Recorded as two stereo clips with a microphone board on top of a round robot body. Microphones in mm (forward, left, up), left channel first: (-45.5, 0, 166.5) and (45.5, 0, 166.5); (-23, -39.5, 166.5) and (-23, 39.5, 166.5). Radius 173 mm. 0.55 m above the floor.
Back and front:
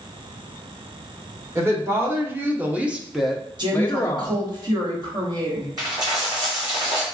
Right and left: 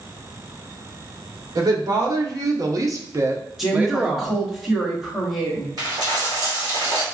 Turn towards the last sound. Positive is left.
turn(degrees=50)